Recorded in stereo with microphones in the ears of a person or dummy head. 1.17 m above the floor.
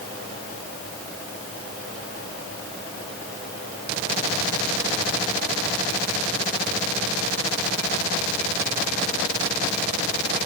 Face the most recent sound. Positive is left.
No sound to turn to.